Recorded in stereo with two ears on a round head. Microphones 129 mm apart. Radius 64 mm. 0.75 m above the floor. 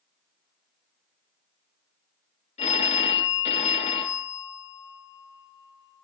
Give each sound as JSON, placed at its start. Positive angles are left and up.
{"t": 2.6, "sound": "a phone ringing", "side_deg": 45, "distance_m": 2.0}